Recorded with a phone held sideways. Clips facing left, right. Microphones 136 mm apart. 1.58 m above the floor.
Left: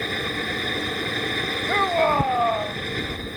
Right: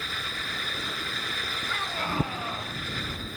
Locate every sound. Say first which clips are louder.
0.0 s a fan: left 10 dB; 60° left (ahead or behind)
1.7 s a shout: left 14 dB; 70° left (ahead or behind)